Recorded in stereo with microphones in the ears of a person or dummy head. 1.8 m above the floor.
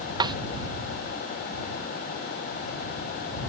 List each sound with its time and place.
0.2 s a snare drum: 20° right (ahead or behind)